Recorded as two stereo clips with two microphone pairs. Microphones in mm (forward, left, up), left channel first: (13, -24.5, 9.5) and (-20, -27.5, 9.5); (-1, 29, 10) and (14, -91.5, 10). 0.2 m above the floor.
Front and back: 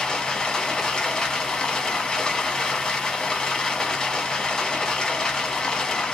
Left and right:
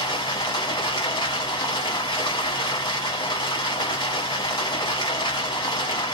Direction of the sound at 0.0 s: 65° left.